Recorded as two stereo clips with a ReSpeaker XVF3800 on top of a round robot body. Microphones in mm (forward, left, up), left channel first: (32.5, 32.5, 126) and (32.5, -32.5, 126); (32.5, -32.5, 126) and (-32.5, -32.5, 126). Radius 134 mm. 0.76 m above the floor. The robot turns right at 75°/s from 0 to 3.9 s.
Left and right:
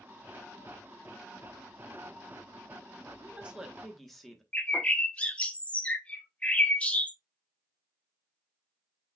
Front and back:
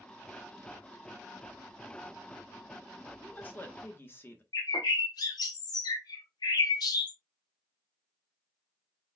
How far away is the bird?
About 0.5 m.